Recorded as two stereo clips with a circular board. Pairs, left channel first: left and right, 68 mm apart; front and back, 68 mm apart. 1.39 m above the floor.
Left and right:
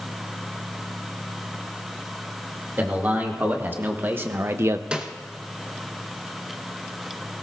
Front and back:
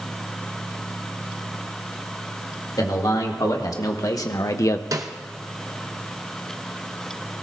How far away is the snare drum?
About 0.8 m.